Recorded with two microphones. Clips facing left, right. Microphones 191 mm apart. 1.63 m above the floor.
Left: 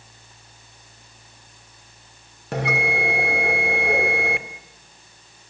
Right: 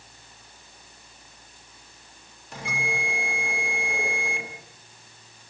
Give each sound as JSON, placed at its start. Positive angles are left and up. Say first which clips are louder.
{"t": 2.5, "sound": "a bell", "louder": "left 9 dB", "side_deg": 70, "distance_m": 2.5}